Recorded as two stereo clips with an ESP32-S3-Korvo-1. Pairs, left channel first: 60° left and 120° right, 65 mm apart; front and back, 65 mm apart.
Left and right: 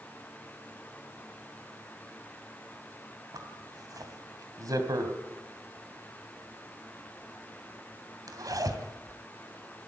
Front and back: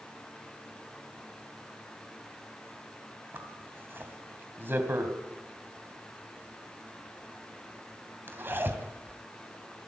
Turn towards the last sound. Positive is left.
turn(degrees=-125)